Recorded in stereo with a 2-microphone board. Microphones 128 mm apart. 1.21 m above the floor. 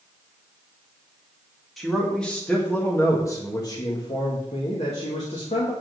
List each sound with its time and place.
1.8 s a man speaking: centre (ahead or behind), 1.9 m; by 5.7 s 70° left (ahead or behind), 2.0 m